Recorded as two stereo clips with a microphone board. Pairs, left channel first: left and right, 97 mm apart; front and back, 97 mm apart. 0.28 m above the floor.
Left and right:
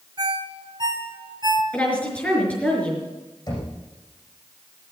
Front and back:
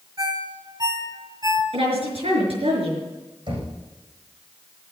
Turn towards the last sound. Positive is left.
turn(degrees=140)